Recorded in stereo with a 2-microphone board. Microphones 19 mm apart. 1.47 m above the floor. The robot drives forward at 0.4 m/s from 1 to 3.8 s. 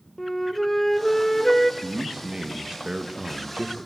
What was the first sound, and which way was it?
A flute, 15° left (ahead or behind).